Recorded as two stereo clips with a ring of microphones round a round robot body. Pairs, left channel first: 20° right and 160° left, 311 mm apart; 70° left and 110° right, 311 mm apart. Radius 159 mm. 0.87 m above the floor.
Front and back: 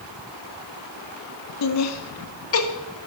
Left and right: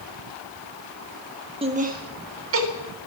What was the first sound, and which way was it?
Laughter, 40° right.